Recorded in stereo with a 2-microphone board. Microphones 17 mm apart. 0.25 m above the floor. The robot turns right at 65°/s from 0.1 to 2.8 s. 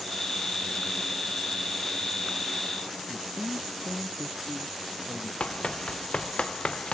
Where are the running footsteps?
85° left; by 7.0 s 80° left.